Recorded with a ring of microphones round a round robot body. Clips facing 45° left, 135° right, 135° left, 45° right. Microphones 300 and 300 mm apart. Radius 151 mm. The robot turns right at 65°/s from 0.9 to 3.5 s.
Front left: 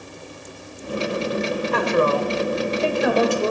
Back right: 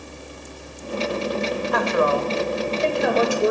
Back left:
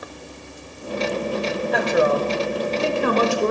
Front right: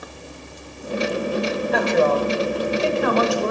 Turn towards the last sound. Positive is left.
turn(degrees=160)